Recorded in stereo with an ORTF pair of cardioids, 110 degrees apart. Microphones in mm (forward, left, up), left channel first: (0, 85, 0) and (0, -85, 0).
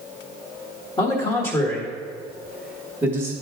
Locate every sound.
1.0 s a man speaking: 30° left, 1.5 m; by 3.3 s 20° right, 1.5 m